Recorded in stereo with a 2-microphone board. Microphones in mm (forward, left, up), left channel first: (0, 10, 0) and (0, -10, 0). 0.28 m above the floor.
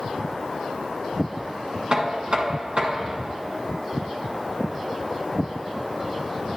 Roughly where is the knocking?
Right.